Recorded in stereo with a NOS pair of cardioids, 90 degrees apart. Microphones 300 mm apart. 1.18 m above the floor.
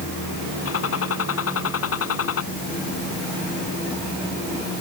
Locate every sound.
0.7 s a gunshot: 50° left